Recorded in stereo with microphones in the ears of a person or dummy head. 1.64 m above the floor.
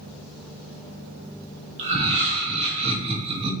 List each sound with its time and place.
1.8 s laughter: 30° right (ahead or behind), 1.7 m